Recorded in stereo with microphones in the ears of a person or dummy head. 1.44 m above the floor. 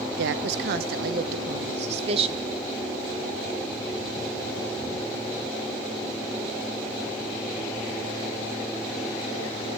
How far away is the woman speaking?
About 1.4 m.